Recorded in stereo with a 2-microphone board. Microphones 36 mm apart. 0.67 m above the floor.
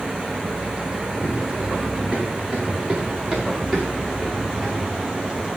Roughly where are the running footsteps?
Right.